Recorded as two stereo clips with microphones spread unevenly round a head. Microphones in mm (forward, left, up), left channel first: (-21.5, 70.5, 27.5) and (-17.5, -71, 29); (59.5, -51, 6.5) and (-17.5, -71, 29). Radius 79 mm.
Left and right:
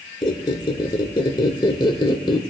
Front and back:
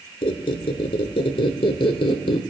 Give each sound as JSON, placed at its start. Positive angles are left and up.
{"t": 0.2, "sound": "a squeak", "azimuth_deg": 35, "distance_m": 0.9}